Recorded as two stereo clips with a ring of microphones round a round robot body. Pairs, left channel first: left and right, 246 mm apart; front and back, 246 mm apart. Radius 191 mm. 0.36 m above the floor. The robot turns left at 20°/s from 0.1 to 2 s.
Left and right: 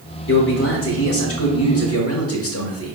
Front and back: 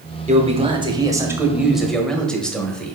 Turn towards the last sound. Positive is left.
turn(degrees=85)